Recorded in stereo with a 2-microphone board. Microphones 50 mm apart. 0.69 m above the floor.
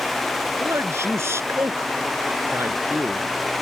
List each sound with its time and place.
0.6 s a man speaking: 60° right (ahead or behind)